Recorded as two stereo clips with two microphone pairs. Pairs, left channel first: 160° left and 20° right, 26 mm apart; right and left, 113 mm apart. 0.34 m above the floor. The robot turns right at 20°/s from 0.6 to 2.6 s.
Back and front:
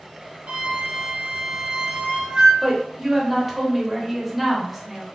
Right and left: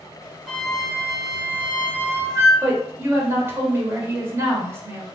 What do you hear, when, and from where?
0.5 s a flute: 5° right, 0.8 m; by 2.5 s 30° left, 0.8 m
2.6 s a woman speaking: 65° left, 0.9 m